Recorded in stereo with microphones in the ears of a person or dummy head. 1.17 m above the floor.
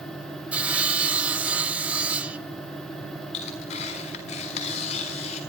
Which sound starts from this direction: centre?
Sawing, at 0.5 s.